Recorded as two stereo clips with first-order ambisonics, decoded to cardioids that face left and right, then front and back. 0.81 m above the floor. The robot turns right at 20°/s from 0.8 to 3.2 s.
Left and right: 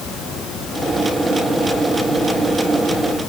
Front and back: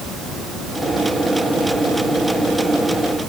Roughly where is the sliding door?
No sliding door in this recording.